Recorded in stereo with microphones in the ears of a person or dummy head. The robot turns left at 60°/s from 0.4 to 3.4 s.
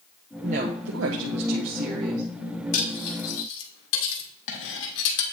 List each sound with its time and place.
0.4 s a woman speaking: 35° right, 0.7 m; by 2.2 s 140° right, 0.7 m
2.7 s cutlery clinking: 55° left (ahead or behind), 1.5 m; by 5.2 s 70° left (ahead or behind), 1.5 m